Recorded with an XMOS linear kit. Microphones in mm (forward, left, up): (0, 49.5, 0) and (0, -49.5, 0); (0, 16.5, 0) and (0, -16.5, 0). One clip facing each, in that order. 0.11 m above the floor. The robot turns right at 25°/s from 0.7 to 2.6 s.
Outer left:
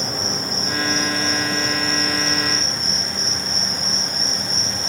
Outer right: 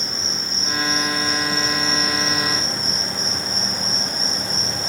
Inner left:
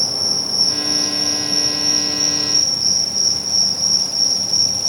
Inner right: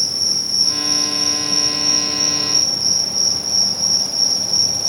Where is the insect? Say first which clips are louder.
Outer left 5 dB, even; 140° left, 1.5 m; by 4.9 s 175° right, 1.5 m.